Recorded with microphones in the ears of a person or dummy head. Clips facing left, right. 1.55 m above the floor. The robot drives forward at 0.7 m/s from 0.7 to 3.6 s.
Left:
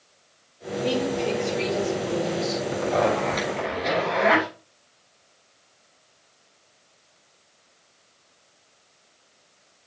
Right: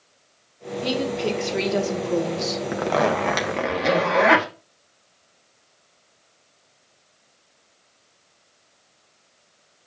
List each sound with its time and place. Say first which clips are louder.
0.8 s a woman speaking: even; 55° right (ahead or behind), 2.5 m; by 2.6 s 85° right, 2 m
2.7 s a zipper: right 1 dB; 85° right, 1.3 m; by 4.5 s 65° right (ahead or behind), 1.4 m